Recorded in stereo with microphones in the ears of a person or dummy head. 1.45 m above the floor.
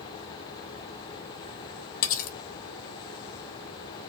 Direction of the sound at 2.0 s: 50° left (ahead or behind).